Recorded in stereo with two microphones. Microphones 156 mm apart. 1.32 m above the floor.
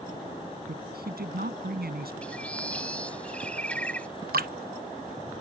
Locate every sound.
0.7 s a woman speaking: 85° right
2.2 s a bird: 10° left (ahead or behind)
4.3 s dripping: 70° right (ahead or behind)